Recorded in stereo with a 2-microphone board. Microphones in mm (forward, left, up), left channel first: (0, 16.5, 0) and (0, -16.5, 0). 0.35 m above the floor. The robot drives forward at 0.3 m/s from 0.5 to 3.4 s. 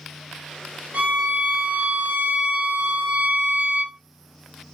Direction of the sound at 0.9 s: 55° right (ahead or behind).